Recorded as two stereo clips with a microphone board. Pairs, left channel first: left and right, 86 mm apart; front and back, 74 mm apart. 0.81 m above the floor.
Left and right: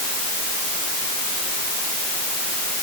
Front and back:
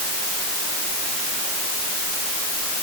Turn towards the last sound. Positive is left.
No sound to turn to.